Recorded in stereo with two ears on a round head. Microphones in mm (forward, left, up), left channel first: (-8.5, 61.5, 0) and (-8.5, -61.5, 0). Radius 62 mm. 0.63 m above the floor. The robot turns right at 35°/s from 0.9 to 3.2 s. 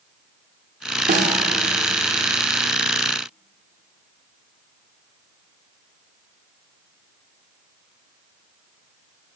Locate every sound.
1.1 s a snare drum: 60° right (ahead or behind), 0.6 m; by 1.4 s 50° right (ahead or behind), 0.6 m